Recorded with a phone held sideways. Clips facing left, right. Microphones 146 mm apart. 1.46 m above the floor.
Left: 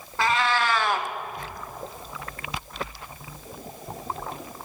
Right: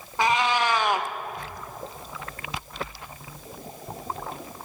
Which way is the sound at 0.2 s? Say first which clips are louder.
Right 1 dB; 15° right (ahead or behind).